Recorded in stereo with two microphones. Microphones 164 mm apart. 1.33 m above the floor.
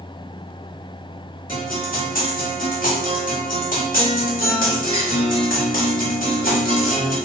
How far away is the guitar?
About 1.0 m.